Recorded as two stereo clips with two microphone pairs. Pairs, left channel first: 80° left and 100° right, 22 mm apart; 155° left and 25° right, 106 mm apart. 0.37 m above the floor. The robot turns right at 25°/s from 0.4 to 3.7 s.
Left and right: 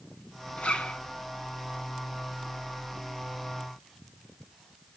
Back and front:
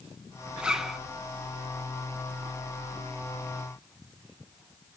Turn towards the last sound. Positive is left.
turn(degrees=135)